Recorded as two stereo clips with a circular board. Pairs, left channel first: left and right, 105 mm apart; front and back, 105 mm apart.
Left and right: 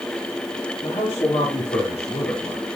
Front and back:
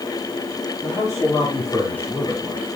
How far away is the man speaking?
About 4 m.